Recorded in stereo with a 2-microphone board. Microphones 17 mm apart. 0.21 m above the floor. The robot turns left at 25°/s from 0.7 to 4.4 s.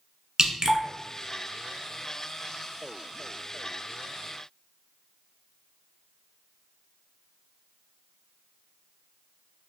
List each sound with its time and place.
0.4 s dripping: 40° right (ahead or behind), 0.7 m